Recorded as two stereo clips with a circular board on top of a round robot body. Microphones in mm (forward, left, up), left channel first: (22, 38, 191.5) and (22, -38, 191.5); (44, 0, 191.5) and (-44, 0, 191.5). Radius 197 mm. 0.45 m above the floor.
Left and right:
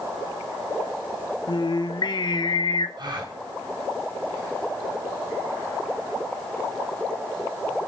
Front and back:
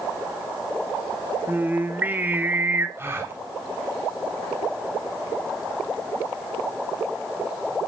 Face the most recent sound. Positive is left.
turn(degrees=-115)